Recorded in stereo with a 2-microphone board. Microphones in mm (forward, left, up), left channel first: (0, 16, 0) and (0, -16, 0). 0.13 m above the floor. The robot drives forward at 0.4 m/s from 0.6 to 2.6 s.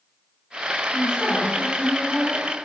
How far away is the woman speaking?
About 1.6 m.